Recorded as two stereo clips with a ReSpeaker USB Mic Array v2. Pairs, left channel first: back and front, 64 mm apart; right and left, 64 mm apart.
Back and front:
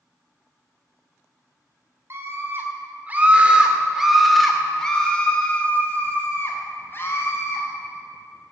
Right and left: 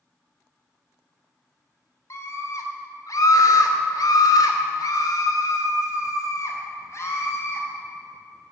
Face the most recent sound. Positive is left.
turn(degrees=-135)